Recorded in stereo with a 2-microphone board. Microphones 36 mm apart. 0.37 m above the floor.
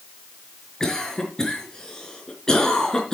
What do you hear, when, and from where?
0.8 s a cough: 20° left (ahead or behind), 4 m